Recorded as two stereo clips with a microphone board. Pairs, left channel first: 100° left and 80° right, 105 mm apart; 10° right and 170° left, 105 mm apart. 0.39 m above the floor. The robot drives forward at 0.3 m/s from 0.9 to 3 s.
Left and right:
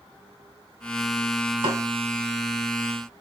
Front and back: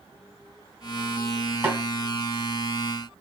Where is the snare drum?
115° right, 2 m; by 1.8 s 120° right, 2 m.